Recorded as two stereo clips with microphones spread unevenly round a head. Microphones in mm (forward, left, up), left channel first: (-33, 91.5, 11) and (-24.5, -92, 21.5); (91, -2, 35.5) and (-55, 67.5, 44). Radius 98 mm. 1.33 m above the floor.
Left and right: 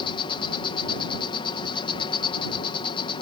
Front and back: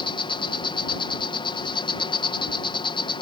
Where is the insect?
30° left.